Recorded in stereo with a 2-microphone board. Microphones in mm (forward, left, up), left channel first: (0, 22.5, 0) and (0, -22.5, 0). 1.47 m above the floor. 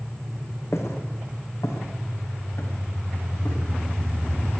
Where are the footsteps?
70° left (ahead or behind), 5.5 m; by 3.6 s 80° left, 9.5 m.